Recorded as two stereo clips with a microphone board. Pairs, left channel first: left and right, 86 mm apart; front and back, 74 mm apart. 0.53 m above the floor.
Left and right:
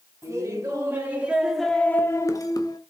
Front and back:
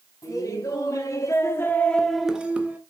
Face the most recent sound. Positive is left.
turn(degrees=115)